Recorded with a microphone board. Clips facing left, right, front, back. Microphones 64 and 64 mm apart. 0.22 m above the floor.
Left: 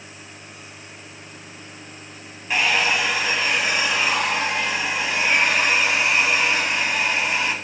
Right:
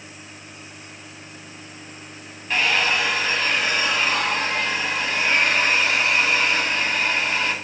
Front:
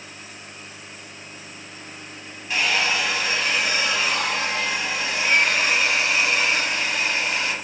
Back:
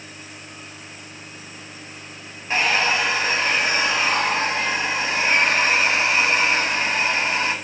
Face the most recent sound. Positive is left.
turn(degrees=165)